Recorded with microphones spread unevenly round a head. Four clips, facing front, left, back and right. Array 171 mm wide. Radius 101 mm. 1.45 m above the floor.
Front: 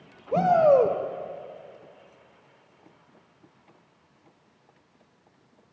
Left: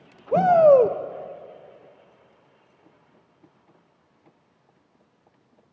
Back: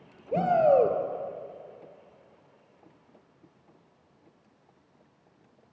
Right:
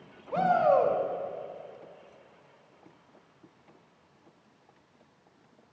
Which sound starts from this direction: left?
A shout, at 0.3 s.